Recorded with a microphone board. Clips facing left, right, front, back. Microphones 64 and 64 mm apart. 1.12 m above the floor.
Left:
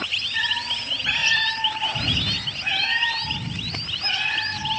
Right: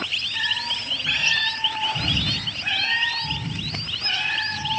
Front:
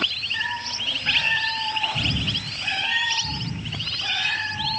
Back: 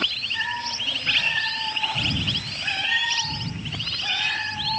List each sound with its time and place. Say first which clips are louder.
0.3 s a cat meowing: left 1 dB, back 1 dB; 40° left, 3.5 m; by 4.7 s 20° left, 8 m